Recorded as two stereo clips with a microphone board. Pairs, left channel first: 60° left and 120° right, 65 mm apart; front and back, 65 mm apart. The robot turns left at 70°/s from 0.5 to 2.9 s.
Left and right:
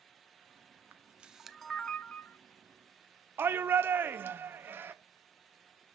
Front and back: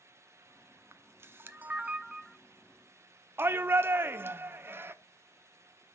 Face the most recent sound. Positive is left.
turn(degrees=-155)